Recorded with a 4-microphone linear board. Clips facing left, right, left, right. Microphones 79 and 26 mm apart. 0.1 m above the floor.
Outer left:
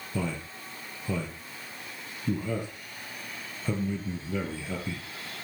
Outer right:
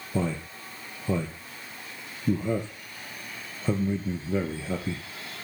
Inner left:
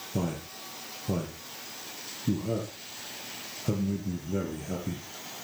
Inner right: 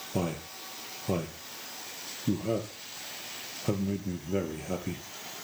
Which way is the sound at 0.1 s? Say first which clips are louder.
Outer right 4 dB, even; 30° right (ahead or behind).